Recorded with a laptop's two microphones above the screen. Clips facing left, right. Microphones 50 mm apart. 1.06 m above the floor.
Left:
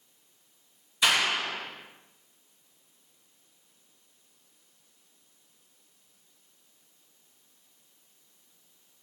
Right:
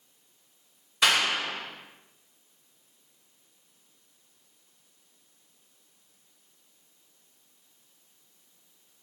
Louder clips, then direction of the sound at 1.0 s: Right 1 dB; 65° right (ahead or behind).